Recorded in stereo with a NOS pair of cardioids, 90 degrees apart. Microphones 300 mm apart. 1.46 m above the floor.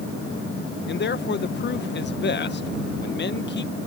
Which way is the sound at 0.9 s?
40° left.